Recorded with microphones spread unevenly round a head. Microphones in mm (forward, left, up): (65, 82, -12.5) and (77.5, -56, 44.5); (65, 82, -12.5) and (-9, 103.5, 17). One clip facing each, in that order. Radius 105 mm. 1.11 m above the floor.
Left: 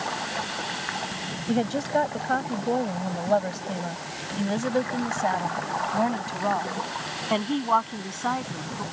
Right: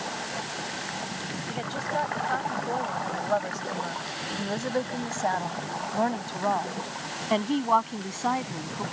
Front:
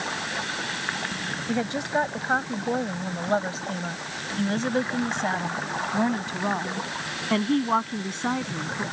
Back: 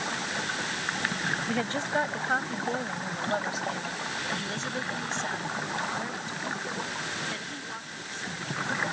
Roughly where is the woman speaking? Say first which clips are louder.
Left 9 dB, front 6 dB; ahead left.